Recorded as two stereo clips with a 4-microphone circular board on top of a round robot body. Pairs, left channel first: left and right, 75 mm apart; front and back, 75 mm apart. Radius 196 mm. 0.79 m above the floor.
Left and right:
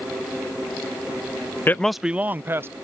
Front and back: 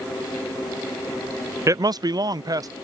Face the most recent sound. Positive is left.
turn(degrees=-145)